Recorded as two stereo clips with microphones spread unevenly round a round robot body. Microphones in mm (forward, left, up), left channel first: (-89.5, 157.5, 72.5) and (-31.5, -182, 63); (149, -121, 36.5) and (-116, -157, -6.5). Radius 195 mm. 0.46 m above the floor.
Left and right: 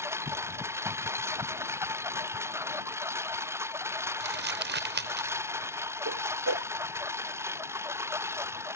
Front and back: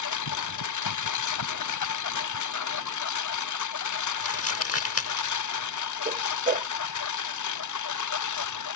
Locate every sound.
0.0 s a lawn mower: 5° left
4.2 s crumpling: 25° right
6.0 s a whoosh: 115° right